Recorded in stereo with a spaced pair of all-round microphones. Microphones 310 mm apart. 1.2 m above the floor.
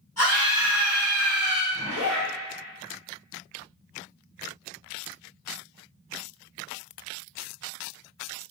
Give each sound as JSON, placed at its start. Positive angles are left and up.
{"t": 0.2, "sound": "a scream", "side_deg": 50, "distance_m": 1.6}
{"t": 1.7, "sound": "a zipper", "side_deg": 70, "distance_m": 1.9}